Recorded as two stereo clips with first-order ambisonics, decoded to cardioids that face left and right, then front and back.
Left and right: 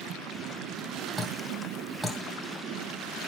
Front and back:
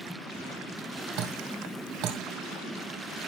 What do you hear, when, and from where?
1.2 s dripping: 175° right, 2 m